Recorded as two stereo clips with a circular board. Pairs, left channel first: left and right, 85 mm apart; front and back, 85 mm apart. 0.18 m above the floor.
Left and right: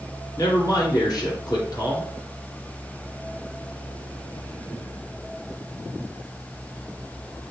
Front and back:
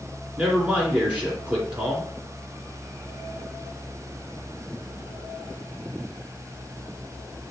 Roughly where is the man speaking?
Left.